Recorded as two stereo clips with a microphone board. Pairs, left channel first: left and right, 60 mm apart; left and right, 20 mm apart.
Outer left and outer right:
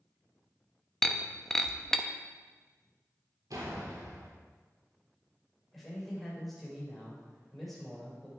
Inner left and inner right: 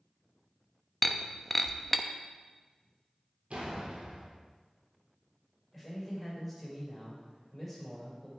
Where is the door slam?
80° right, 3 m.